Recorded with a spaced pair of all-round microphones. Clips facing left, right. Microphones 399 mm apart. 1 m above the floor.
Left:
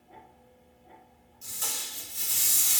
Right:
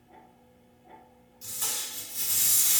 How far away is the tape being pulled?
About 2 m.